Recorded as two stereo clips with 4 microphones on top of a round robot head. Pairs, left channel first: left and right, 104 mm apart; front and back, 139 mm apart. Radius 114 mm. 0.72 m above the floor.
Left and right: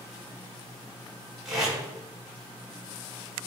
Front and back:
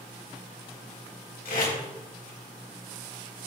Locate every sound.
1.4 s tape being pulled: 5° right, 7 m